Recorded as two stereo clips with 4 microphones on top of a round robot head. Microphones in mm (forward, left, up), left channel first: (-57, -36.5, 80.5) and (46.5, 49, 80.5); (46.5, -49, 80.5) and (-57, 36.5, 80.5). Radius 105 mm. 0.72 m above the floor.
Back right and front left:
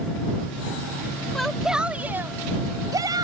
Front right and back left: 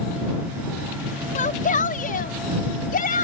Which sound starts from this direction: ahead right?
A shout, at 1.4 s.